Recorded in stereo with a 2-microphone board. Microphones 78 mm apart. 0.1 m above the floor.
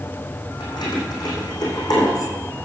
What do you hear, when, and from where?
0.6 s keys jangling: 60° left (ahead or behind), 4 m; by 2.3 s 50° left (ahead or behind), 4.5 m